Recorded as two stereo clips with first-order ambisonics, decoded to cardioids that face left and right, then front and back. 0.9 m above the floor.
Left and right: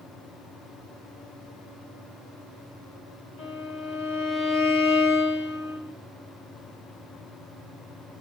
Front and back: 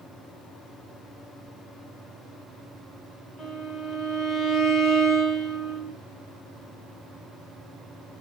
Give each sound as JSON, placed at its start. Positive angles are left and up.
{"t": 3.4, "sound": "a violin", "azimuth_deg": 85, "distance_m": 1.4}